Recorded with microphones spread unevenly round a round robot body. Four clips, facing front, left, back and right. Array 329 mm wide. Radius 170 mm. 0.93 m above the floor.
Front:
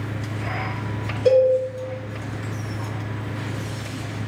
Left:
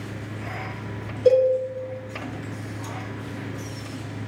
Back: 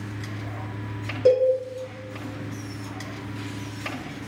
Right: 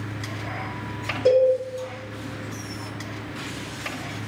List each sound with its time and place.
1.2 s a cowbell: 160° right, 1.1 m